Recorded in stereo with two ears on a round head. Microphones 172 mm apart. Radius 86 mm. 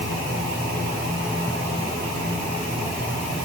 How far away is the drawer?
No drawer in this recording.